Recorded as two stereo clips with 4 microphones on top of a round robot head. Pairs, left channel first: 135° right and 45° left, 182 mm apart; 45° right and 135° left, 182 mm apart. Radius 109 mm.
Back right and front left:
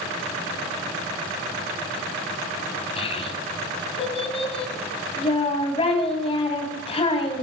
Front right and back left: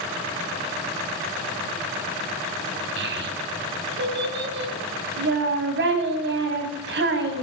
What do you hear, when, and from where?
3.0 s a child speaking: 165° left, 2.5 m